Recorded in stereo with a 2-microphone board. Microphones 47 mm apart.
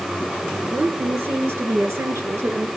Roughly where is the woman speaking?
Right.